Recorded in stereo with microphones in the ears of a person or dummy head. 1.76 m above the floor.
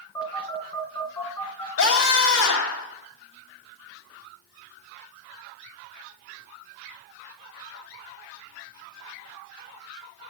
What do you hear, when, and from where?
0.1 s a phone buzzing: 15° left (ahead or behind), 3.5 m
1.8 s a scream: 75° left (ahead or behind), 4 m